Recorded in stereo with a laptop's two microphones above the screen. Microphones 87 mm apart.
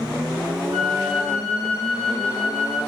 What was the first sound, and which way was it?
A flute, 20° right (ahead or behind).